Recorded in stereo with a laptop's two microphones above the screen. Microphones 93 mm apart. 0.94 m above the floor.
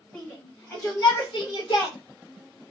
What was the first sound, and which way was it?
A shout, 25° left (ahead or behind).